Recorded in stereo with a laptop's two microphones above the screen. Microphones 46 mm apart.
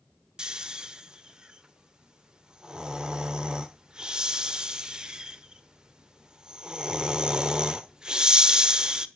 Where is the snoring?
20° right (ahead or behind), 1.1 m.